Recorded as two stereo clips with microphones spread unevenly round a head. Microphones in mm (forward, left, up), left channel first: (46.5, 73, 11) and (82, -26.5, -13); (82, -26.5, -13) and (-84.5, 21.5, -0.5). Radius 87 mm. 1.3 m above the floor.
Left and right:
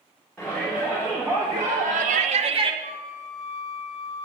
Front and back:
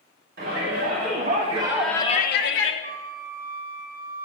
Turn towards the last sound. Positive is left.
turn(degrees=-50)